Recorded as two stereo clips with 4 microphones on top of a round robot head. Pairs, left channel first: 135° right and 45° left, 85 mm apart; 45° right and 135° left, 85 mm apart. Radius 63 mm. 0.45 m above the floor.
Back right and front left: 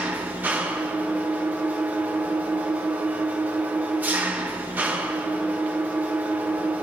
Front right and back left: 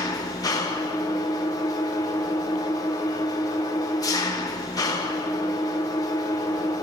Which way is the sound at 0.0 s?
20° right.